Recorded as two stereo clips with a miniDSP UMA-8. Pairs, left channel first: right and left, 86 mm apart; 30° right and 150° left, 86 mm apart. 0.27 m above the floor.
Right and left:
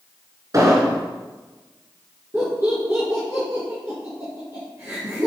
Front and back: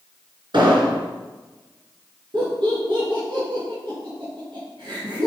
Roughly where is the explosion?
Behind left.